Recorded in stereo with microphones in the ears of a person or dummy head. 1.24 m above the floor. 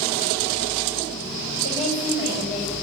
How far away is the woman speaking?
About 5.5 m.